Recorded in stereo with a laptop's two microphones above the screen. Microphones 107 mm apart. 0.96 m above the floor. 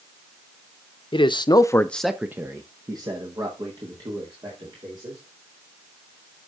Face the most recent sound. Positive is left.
turn(degrees=-50)  # may be behind; listen again after turning